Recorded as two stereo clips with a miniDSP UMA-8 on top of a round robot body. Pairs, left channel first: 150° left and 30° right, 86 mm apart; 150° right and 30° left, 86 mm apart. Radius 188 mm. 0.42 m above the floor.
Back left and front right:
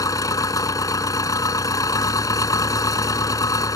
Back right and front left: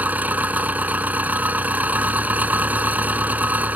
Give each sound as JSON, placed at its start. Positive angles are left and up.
{"t": 0.0, "sound": "an engine running", "azimuth_deg": 100}